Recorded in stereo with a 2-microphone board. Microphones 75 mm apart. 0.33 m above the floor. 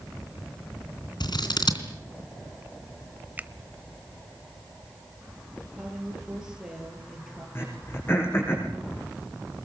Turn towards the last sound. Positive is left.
turn(degrees=30)  # may be behind; listen again after turning